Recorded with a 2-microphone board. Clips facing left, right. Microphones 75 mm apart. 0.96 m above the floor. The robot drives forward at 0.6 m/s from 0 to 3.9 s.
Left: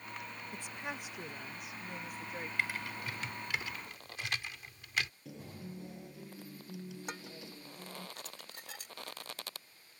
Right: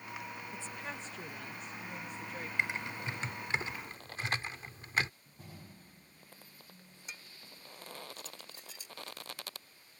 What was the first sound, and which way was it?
A woman speaking, 15° left (ahead or behind).